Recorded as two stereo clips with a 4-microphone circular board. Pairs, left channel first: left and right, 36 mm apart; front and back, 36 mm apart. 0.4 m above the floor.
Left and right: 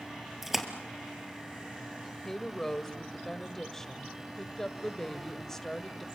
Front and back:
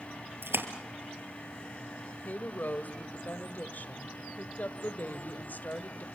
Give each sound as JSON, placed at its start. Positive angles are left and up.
{"t": 0.4, "sound": "a splash", "azimuth_deg": -175, "distance_m": 2.0}
{"t": 2.2, "sound": "a woman speaking", "azimuth_deg": 10, "distance_m": 1.5}